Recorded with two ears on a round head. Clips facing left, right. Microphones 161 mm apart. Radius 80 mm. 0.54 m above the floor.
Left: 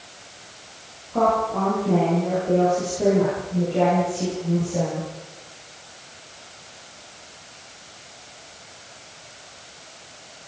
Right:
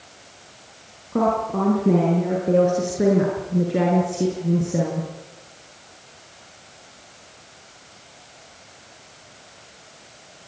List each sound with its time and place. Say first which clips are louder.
1.1 s a woman speaking: even; 75° right (ahead or behind), 7.5 m